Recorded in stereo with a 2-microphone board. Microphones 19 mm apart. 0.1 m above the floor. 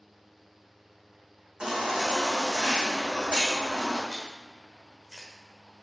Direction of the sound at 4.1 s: 35° left (ahead or behind).